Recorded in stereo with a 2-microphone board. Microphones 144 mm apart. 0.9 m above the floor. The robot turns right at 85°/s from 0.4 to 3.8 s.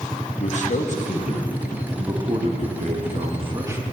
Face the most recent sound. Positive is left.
turn(degrees=-15)